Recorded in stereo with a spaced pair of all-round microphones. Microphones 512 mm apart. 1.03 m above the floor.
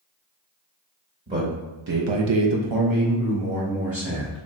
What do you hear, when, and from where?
1.3 s a man speaking: 15° right (ahead or behind), 0.9 m; by 4.4 s 25° right (ahead or behind), 1.9 m